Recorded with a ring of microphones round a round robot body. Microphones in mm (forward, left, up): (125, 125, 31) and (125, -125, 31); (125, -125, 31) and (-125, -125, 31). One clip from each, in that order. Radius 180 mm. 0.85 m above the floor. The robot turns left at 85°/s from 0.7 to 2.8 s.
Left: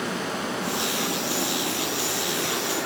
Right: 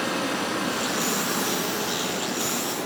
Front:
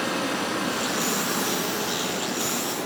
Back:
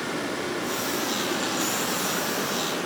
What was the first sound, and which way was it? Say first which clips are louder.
Running water: right 2 dB, front 3 dB; 30° right.